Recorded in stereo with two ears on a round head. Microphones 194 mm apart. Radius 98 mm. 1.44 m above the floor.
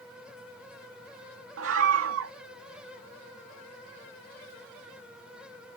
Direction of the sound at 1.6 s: 70° right (ahead or behind).